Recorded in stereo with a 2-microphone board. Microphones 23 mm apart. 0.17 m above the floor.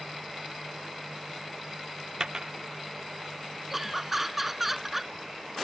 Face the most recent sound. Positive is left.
turn(degrees=-10)  # may be behind; listen again after turning